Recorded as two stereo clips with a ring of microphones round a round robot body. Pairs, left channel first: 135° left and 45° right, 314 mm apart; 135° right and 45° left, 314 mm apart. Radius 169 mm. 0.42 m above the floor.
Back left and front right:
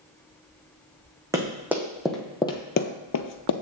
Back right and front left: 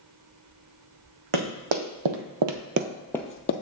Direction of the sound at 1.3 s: 35° left.